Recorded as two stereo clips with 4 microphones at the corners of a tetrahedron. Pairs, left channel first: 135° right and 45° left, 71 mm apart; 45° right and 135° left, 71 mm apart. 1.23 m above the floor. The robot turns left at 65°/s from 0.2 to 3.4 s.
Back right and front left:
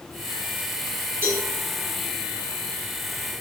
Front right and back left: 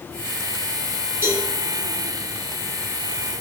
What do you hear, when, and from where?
1.2 s a cowbell: 90° left, 1.0 m; by 1.4 s 75° left, 1.0 m